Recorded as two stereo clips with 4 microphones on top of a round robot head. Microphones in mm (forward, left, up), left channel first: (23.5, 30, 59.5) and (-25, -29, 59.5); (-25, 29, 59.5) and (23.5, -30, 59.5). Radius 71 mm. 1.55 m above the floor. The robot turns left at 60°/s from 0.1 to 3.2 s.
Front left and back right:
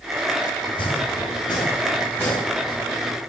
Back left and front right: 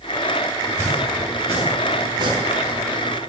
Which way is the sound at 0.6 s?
65° left.